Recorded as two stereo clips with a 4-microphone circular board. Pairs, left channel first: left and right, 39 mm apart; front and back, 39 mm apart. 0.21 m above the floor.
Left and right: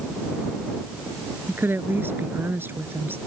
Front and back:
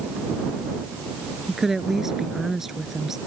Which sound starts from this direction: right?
A woman speaking, at 1.5 s.